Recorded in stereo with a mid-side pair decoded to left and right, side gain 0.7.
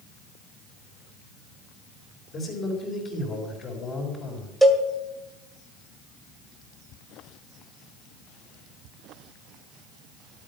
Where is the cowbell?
10° right, 2 m.